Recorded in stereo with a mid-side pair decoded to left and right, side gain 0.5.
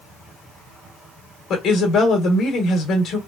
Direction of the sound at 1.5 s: 60° left.